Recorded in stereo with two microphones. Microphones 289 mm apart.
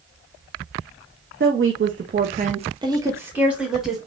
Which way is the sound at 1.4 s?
45° right (ahead or behind).